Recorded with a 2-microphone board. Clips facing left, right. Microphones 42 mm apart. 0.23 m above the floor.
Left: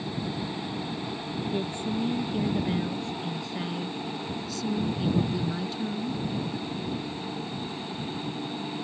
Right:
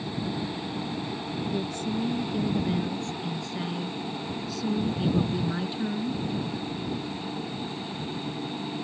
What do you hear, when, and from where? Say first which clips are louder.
1.5 s a woman speaking: left 1 dB; 30° left (ahead or behind); by 6.2 s 30° right (ahead or behind)